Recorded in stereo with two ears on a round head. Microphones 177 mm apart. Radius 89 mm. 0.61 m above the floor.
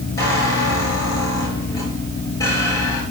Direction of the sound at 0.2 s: 20° left (ahead or behind).